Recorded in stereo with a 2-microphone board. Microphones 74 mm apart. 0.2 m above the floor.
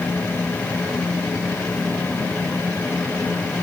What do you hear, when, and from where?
Only background noise.